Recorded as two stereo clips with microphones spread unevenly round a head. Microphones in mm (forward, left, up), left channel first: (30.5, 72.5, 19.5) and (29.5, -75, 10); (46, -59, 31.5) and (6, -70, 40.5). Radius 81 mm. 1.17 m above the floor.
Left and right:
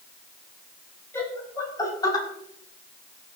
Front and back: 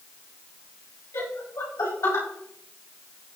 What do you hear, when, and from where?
1.1 s laughter: 15° left, 6.5 m; by 2.2 s 25° left, 6 m